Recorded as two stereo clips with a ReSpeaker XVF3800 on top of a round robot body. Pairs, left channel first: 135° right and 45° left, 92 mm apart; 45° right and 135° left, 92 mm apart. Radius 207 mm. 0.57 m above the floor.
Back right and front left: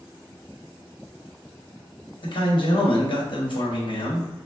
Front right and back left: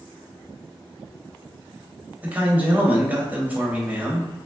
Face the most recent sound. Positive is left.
turn(degrees=-155)